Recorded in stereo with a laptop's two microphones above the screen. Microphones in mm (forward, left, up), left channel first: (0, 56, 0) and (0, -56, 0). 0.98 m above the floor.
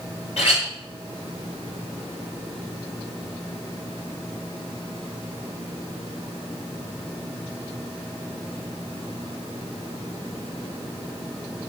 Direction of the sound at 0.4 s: 70° left (ahead or behind).